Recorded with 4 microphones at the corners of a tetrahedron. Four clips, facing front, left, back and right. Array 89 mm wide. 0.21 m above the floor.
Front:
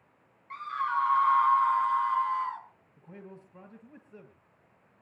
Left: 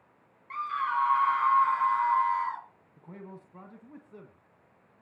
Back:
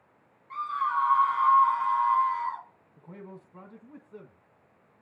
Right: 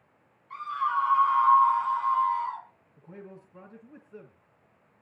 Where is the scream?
80° left, 4 m; by 2.6 s 110° left, 3 m.